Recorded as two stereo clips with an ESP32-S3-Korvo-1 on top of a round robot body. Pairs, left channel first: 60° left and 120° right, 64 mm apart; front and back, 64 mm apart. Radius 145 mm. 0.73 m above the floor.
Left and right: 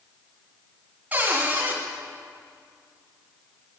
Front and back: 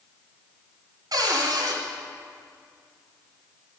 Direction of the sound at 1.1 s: 175° left.